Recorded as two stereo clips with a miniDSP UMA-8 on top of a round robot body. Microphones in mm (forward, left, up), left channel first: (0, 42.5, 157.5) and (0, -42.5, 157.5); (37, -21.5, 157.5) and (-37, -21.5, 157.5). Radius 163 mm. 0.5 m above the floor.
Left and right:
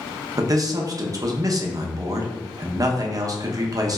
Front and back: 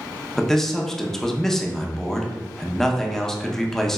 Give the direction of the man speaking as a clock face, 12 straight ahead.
3 o'clock.